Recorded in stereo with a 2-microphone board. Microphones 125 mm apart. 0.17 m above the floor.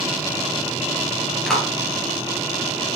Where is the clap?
5° left (ahead or behind), 2.5 m.